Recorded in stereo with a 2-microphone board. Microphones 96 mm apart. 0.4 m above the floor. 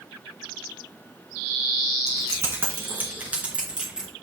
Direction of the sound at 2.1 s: 35° right (ahead or behind).